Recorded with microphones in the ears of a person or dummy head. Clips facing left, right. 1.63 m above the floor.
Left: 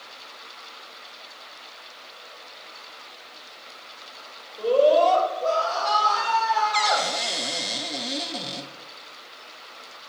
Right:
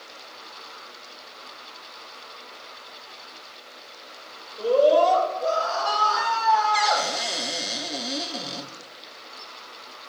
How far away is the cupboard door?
About 1.1 m.